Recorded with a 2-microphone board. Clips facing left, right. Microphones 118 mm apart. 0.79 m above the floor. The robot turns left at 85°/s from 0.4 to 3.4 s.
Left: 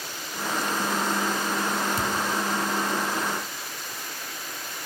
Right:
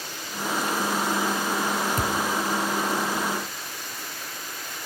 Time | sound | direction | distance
2.0 | a thud | 50° right (ahead or behind) | 1.1 m